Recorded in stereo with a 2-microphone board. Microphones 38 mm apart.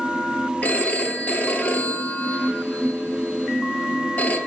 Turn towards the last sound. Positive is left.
turn(degrees=40)  # may be behind; listen again after turning